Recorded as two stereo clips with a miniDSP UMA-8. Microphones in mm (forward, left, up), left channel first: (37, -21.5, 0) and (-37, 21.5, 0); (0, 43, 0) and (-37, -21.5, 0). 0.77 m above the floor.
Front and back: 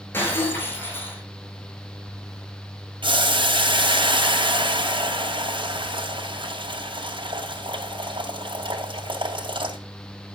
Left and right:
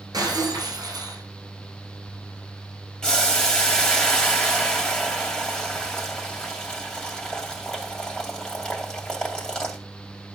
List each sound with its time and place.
0.1 s breaking glass: 95° right, 7 m
3.0 s boiling: 140° left, 2.5 m